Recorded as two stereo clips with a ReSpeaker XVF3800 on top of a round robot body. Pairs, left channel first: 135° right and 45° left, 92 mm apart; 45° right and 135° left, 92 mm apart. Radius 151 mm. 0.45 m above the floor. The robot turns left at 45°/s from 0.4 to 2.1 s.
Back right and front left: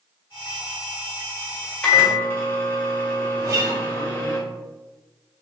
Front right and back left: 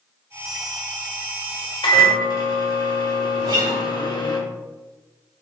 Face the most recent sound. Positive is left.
turn(degrees=95)